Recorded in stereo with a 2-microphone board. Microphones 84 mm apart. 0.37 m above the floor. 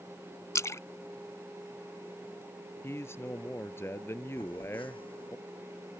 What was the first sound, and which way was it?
A splash, 35° left (ahead or behind).